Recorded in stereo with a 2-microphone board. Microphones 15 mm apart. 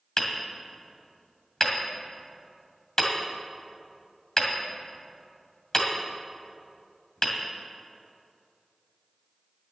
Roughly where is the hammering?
Left.